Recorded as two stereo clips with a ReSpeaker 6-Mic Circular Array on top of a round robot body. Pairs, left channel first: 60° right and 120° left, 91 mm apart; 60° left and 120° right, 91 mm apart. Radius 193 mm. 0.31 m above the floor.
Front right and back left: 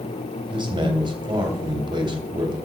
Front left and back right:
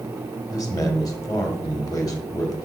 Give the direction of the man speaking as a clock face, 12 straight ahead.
9 o'clock.